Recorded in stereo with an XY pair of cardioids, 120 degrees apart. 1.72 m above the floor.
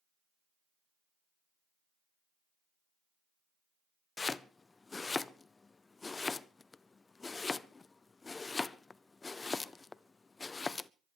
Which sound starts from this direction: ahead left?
Chopping, at 4.2 s.